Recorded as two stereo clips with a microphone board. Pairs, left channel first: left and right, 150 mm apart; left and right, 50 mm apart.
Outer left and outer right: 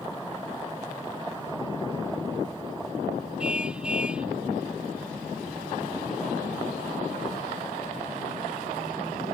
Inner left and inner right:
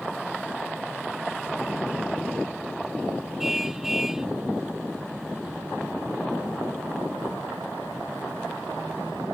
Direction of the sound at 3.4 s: 5° right (ahead or behind).